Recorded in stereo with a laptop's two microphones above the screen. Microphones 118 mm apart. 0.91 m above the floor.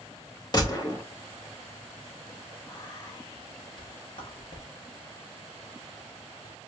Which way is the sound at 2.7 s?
40° left (ahead or behind).